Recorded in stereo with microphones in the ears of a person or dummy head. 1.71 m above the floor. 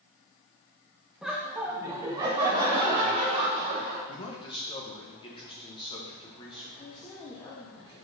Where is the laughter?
Centre (ahead or behind), 1.4 m; by 4.0 s 30° right (ahead or behind), 2.5 m.